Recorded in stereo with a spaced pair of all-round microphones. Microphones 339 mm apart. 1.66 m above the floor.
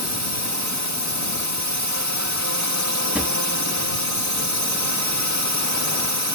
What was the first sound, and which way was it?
A drone, 60° right (ahead or behind).